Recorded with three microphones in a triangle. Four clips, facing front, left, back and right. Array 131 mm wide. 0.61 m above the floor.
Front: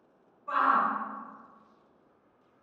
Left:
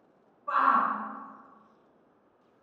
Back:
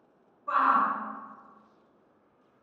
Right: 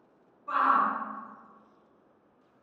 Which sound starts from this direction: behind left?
A shout, at 0.5 s.